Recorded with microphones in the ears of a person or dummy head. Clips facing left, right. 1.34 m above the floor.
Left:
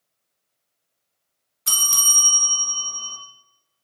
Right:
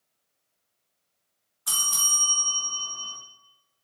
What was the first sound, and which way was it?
A bell, 35° left (ahead or behind).